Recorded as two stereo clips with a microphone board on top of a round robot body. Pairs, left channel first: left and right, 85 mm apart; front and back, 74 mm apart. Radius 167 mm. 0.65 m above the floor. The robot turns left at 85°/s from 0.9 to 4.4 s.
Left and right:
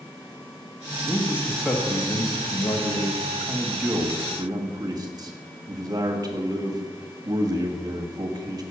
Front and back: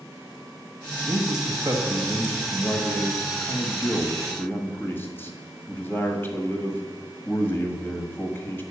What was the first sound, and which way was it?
A man speaking, 135° right.